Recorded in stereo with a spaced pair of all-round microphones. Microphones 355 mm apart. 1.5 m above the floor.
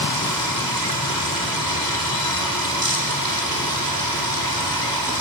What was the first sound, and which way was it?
Running water, 75° right (ahead or behind).